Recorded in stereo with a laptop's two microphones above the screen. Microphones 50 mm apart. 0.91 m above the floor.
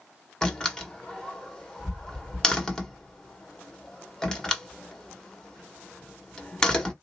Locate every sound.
0.4 s a door slam: 15° left (ahead or behind), 1.2 m